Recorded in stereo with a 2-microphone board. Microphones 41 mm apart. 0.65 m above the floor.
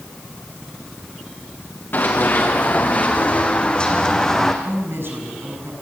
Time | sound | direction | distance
1.9 | running footsteps | 55° left (ahead or behind) | 3.5 m
4.6 | a woman speaking | 70° right (ahead or behind) | 6 m